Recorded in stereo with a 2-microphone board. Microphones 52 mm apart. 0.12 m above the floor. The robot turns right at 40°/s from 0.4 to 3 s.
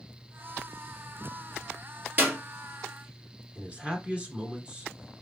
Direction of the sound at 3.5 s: 25° right (ahead or behind).